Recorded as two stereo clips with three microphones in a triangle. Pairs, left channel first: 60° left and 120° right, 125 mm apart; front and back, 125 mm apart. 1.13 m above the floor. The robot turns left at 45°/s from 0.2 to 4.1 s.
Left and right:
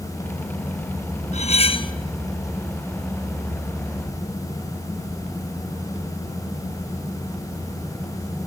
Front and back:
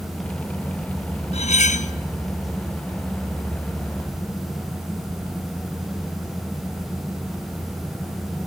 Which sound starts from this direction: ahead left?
Cutlery clinking, at 1.3 s.